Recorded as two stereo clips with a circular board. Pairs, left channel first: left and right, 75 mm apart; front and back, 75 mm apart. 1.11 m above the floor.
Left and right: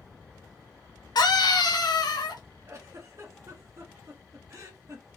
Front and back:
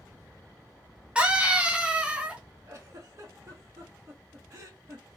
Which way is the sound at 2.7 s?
135° right.